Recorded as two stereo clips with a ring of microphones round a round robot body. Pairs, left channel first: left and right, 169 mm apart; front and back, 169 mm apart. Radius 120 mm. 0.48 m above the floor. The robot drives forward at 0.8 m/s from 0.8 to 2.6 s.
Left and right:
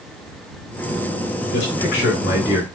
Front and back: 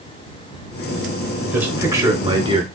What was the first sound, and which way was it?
A man speaking, 100° left.